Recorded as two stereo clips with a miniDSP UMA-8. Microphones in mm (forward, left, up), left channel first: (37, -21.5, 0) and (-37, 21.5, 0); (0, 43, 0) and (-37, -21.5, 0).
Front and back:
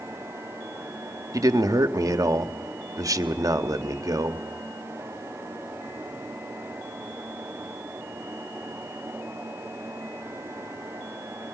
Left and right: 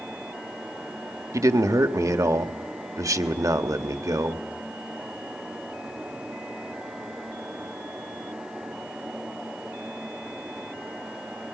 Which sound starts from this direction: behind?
A man speaking, at 1.3 s.